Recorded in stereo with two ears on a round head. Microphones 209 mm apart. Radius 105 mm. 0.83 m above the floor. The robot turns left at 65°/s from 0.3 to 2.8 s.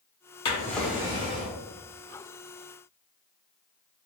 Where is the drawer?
25° left, 0.8 m; by 1.6 s 45° right, 0.8 m.